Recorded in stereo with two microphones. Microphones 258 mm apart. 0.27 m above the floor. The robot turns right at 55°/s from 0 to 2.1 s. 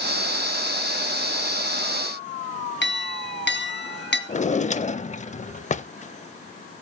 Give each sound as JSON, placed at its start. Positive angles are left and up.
{"t": 2.8, "sound": "a clink", "side_deg": 45, "distance_m": 1.7}
{"t": 4.3, "sound": "a drawer", "side_deg": 30, "distance_m": 0.6}